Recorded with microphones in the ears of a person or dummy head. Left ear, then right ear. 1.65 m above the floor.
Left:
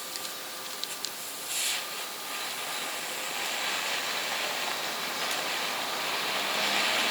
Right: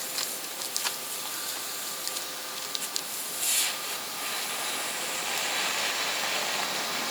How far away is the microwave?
I don't hear a microwave.